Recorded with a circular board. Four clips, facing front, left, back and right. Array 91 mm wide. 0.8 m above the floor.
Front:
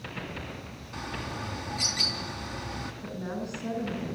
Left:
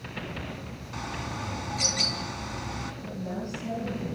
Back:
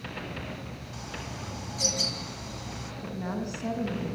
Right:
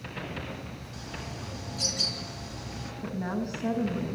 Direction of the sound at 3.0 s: 135° right.